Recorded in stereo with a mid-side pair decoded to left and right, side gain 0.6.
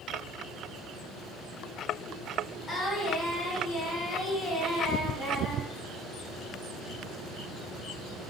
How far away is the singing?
About 2.5 m.